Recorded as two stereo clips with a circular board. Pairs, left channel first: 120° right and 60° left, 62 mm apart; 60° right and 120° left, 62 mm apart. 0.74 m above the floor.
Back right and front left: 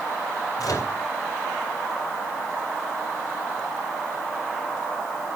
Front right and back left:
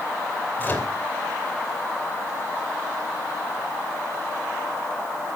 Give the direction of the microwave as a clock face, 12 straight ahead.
4 o'clock.